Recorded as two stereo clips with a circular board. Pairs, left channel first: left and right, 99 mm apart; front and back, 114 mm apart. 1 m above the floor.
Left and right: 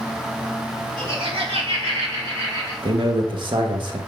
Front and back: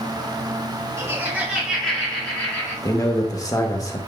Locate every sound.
1.0 s laughter: 115° right, 1.8 m; by 2.7 s 65° right, 1.8 m
2.8 s a man speaking: 60° right, 1.1 m